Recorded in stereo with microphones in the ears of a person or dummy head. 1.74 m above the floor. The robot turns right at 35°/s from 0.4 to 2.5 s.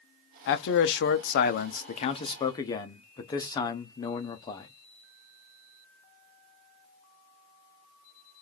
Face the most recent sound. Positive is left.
turn(degrees=150)